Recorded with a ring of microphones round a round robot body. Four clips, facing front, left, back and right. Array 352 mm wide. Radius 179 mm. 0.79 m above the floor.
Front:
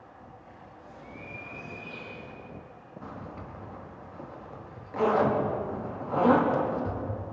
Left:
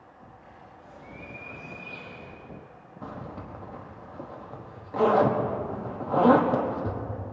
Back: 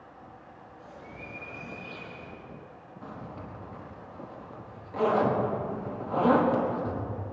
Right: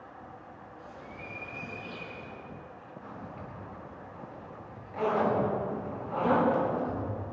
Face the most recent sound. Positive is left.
turn(degrees=85)